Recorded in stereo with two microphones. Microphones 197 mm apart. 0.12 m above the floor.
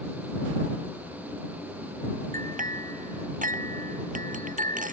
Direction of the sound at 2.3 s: 40° right (ahead or behind).